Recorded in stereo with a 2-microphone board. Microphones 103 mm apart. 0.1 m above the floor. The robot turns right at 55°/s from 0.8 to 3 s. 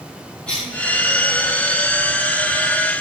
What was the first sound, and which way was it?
A cough, 10° left (ahead or behind).